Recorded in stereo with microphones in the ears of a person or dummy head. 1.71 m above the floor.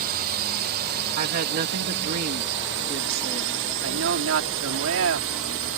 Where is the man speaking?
90° right.